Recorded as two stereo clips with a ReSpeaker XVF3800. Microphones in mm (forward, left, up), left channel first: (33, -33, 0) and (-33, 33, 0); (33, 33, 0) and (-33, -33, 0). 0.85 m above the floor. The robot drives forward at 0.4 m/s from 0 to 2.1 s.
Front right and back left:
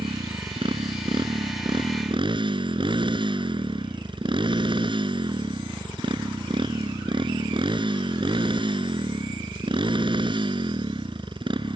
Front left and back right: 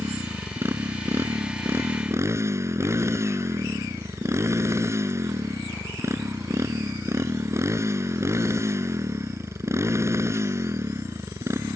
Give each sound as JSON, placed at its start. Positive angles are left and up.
{"t": 0.0, "sound": "a motorcycle", "azimuth_deg": 160}